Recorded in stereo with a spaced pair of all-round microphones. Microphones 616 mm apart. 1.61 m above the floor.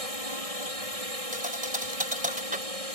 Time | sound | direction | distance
0.0 | a drone | 65° right (ahead or behind) | ?
1.3 | a thud | 15° right (ahead or behind) | ?